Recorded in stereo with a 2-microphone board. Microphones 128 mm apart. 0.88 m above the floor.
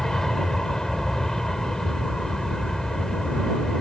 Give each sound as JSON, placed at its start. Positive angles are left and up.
{"t": 0.0, "sound": "an aircraft", "side_deg": 5}